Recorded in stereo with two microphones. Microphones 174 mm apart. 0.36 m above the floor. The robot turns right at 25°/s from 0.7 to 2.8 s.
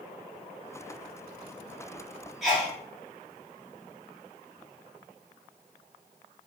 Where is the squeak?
No squeak in this recording.